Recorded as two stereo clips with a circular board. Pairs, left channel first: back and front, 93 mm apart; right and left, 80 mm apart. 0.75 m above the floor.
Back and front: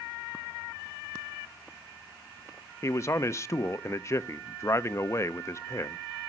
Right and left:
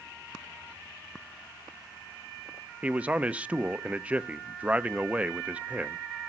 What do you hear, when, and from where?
2.8 s a man speaking: 150° left, 0.5 m